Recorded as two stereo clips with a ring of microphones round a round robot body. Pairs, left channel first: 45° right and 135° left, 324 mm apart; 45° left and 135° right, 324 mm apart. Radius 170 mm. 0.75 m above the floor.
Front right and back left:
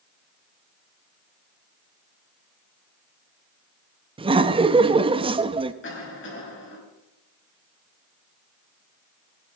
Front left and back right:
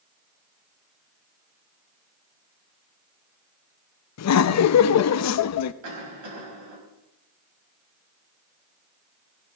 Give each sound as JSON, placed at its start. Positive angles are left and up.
{"t": 4.2, "sound": "laughter", "azimuth_deg": 65, "distance_m": 0.6}
{"t": 5.8, "sound": "a cough", "azimuth_deg": -100, "distance_m": 5.0}